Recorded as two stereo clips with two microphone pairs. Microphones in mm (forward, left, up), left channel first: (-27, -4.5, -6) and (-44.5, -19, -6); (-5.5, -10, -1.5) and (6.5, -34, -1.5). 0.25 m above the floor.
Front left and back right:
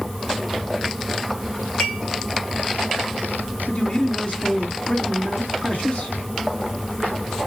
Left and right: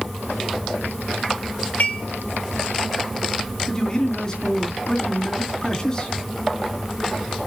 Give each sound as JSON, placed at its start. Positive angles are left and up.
{"t": 1.8, "sound": "dishes clattering", "azimuth_deg": 90, "distance_m": 2.5}
{"t": 3.7, "sound": "a man speaking", "azimuth_deg": 55, "distance_m": 2.5}